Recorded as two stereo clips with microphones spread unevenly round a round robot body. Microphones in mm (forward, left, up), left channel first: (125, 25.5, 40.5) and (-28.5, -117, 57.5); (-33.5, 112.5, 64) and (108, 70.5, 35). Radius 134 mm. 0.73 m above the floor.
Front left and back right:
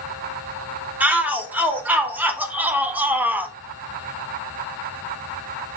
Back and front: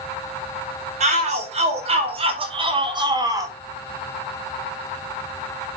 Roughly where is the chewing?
No chewing in this recording.